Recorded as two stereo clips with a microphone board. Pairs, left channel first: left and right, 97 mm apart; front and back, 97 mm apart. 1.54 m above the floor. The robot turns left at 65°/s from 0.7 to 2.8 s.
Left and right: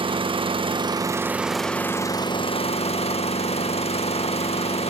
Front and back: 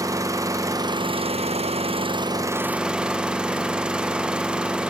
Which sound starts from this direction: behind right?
An engine running, at 0.0 s.